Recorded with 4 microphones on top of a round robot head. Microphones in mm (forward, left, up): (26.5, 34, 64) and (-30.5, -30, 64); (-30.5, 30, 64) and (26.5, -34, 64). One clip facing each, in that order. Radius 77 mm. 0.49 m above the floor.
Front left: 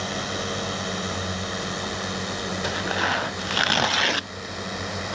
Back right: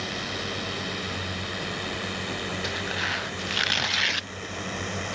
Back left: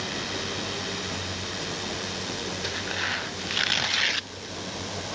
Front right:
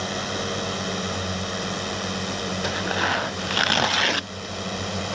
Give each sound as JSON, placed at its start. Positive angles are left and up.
{"t": 0.0, "sound": "a drone", "azimuth_deg": -5}
{"t": 2.6, "sound": "tearing paper", "azimuth_deg": 0}